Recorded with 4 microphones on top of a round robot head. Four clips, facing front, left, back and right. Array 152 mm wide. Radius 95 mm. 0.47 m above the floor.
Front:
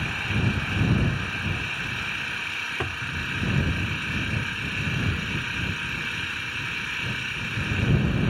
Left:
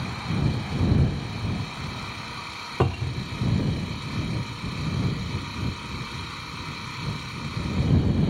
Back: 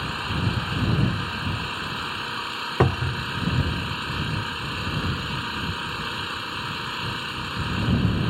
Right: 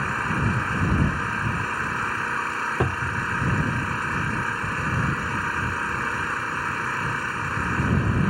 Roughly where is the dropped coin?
No dropped coin in this recording.